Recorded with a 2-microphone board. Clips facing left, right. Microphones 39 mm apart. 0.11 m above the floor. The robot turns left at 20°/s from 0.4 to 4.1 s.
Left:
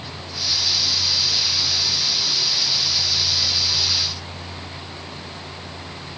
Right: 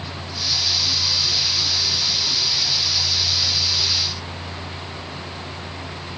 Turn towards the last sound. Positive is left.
No sound to turn to.